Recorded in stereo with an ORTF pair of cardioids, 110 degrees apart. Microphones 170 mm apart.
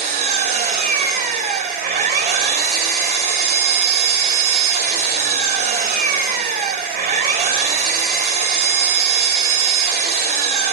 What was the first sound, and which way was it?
An engine running, 60° right.